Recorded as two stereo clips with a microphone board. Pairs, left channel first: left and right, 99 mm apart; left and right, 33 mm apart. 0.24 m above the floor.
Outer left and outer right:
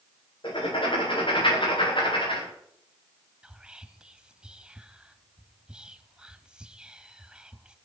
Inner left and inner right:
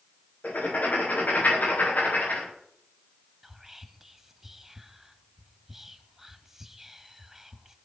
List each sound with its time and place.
0.4 s writing: 65° left (ahead or behind), 9.5 m
3.4 s whispering: 10° right (ahead or behind), 1.2 m